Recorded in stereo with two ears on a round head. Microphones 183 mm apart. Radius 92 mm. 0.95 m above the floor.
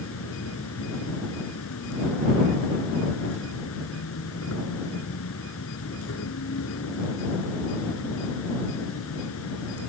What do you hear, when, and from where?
0.0 s an insect: 75° left (ahead or behind)